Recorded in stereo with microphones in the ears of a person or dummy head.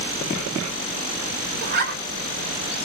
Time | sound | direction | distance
1.6 | a zipper | 50° right (ahead or behind) | 1.3 m